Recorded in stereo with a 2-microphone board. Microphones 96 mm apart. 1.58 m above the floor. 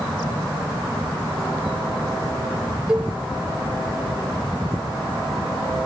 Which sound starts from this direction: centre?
A cowbell, at 2.9 s.